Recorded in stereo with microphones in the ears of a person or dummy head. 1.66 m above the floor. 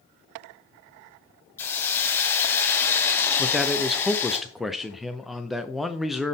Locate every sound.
1.6 s a hiss: 15° left (ahead or behind), 1.0 m
3.4 s a man speaking: centre (ahead or behind), 0.5 m